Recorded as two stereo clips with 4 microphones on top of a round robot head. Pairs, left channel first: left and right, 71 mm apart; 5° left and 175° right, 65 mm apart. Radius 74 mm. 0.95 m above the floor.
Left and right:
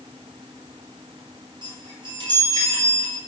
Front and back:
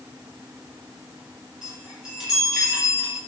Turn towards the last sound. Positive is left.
turn(degrees=-90)